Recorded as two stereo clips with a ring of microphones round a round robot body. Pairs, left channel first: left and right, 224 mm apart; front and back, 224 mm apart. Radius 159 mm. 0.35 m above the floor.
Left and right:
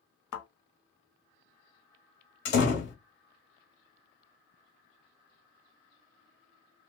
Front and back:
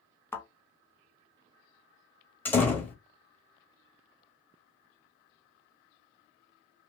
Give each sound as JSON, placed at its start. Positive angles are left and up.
{"t": 0.3, "sound": "a thud", "azimuth_deg": 80, "distance_m": 0.9}
{"t": 2.5, "sound": "a door slam", "azimuth_deg": 80, "distance_m": 1.2}